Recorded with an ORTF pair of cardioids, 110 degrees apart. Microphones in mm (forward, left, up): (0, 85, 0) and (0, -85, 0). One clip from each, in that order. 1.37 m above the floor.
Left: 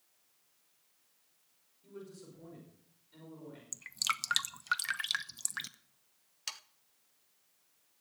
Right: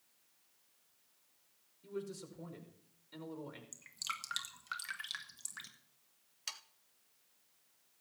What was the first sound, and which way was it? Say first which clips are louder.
A man speaking: right 5 dB; 40° right.